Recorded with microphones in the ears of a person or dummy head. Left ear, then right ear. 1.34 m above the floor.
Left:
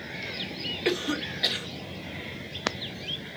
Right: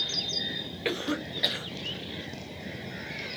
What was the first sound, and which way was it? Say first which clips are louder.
A cough: left 2 dB; 10° right (ahead or behind).